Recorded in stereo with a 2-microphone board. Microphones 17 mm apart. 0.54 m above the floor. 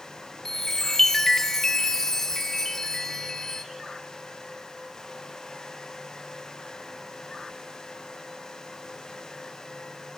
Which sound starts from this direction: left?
A chime, at 0.5 s.